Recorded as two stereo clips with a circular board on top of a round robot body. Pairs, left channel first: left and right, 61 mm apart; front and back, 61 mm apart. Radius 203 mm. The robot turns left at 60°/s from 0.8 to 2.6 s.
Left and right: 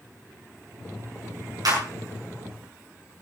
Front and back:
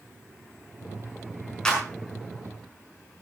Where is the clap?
80° right, 5.5 m; by 1.9 s 90° right, 5.5 m.